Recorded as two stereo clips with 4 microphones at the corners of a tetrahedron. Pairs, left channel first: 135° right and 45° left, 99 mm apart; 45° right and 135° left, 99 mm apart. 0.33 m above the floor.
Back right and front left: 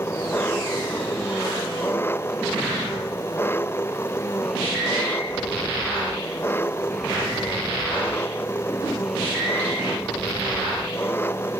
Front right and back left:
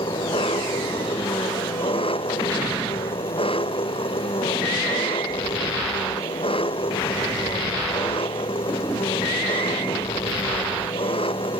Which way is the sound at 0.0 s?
70° right.